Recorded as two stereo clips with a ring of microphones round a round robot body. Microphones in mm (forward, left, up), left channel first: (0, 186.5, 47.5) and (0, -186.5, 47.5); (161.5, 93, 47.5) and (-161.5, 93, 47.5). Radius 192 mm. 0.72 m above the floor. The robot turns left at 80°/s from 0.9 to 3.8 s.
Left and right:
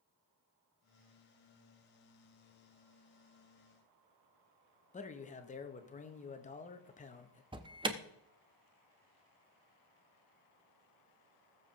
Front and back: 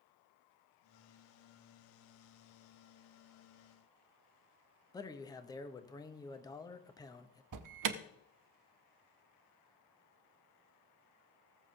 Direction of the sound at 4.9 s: 60° left.